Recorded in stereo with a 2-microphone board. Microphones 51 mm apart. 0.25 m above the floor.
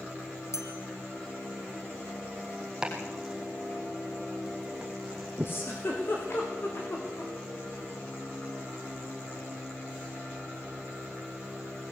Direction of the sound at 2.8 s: 10° right (ahead or behind).